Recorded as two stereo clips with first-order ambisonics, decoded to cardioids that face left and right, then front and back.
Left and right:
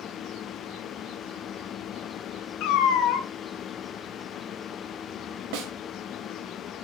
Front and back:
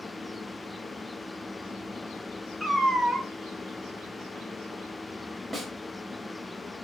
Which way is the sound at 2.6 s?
90° left.